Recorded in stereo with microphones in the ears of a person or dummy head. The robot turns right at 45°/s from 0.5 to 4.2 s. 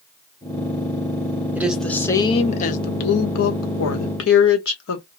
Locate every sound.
1.6 s a woman speaking: 10° right, 1.1 m; by 5.0 s 110° left, 1.1 m